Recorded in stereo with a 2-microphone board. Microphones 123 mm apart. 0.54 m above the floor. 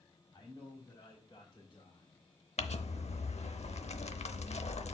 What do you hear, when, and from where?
0.3 s a man speaking: 30° left (ahead or behind), 3 m; by 2.2 s 40° left (ahead or behind), 1.8 m
2.6 s crumpling: 65° left (ahead or behind), 0.7 m